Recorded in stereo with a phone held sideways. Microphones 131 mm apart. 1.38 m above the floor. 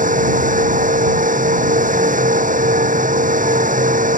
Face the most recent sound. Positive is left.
turn(degrees=-85)